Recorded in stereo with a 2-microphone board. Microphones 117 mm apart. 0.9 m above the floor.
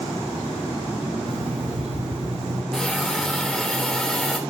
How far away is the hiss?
About 3 m.